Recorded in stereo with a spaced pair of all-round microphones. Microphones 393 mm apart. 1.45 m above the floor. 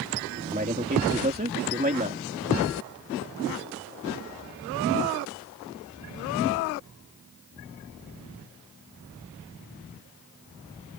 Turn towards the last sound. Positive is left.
turn(degrees=-20)  # may be behind; listen again after turning